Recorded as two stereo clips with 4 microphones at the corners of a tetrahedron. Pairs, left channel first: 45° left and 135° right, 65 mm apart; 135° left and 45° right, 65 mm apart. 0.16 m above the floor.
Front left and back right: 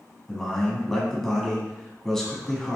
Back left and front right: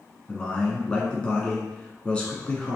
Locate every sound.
0.3 s a man speaking: 115° left, 1.3 m